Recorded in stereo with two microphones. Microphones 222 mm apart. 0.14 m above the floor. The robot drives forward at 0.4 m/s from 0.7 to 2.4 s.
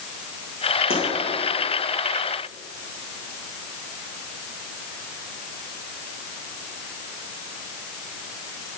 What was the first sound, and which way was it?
A pop, 70° left (ahead or behind).